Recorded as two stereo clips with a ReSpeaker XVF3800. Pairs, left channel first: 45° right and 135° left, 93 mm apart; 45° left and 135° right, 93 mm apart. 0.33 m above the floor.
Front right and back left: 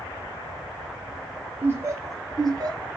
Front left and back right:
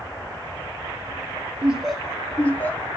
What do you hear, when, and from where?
1.6 s laughter: 165° left, 0.8 m; by 2.9 s 110° left, 1.3 m